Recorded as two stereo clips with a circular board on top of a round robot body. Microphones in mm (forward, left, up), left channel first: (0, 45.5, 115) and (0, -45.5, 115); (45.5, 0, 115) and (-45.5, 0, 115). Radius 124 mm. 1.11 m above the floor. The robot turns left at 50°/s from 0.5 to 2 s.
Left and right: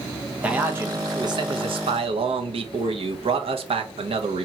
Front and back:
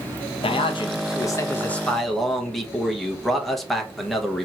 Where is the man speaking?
15° right, 1.0 m; by 4.5 s 90° right, 1.0 m.